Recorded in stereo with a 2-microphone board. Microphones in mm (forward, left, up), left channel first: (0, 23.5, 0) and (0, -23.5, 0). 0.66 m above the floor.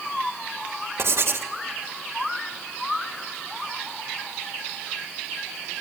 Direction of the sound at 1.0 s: 65° right (ahead or behind).